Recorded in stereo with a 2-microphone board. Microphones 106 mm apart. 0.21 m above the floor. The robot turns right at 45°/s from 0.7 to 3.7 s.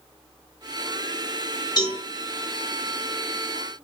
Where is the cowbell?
40° left (ahead or behind), 2 m; by 2.0 s 45° left (ahead or behind), 2 m.